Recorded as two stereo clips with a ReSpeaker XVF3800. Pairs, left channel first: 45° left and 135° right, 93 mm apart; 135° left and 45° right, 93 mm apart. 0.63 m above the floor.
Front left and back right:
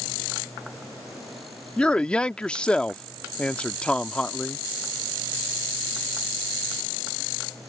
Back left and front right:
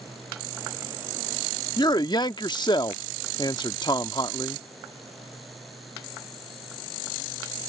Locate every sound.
1.8 s a man speaking: 120° left